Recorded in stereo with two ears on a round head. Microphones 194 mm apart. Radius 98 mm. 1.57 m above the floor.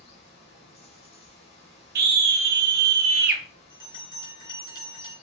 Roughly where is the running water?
Left.